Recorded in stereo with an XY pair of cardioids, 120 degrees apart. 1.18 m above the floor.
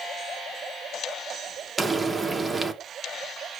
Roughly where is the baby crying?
No baby crying in this recording.